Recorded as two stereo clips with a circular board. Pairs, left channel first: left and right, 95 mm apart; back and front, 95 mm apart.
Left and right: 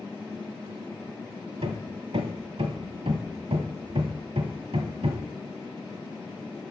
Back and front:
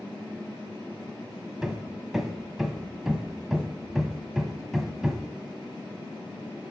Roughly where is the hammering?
Right.